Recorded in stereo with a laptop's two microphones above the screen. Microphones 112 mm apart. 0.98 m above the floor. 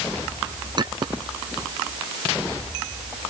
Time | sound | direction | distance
0.8 | a clink | 40° right (ahead or behind) | ?